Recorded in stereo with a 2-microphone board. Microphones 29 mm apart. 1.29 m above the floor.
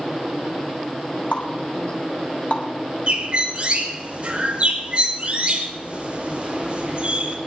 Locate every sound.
1.3 s a running tap: 65° left (ahead or behind), 3.5 m
3.1 s a bird: 40° right (ahead or behind), 3 m